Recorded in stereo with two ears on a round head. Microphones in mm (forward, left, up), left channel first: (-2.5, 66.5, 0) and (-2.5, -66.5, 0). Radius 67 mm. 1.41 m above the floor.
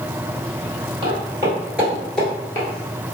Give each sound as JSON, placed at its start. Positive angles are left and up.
{"t": 1.0, "sound": "footsteps", "side_deg": -30, "distance_m": 1.7}